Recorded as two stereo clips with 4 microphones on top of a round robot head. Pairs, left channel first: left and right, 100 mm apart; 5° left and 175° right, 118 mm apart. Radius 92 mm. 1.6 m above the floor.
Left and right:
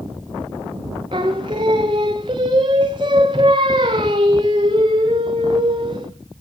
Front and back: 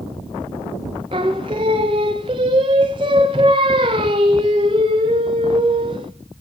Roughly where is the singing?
Behind right.